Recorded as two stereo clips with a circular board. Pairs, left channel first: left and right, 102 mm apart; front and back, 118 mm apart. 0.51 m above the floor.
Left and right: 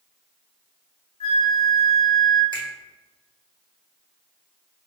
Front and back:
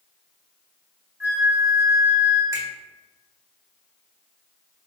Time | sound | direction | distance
1.2 | a flute | 110° left | 1.0 m
2.5 | a finger snap | 120° right | 1.5 m